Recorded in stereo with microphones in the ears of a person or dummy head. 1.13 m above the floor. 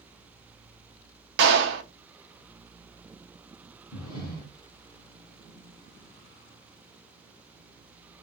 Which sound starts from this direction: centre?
Breathing, at 3.9 s.